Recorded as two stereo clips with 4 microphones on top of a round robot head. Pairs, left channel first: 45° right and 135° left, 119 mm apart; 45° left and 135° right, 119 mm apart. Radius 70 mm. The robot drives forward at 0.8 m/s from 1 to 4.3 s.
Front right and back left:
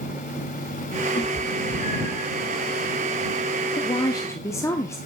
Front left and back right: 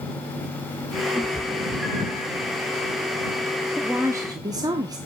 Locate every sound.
1.1 s a cat meowing: 45° right, 6 m; by 2.3 s 55° right, 5.5 m
3.8 s a woman speaking: 55° right, 0.9 m; by 5.0 s 100° right, 0.8 m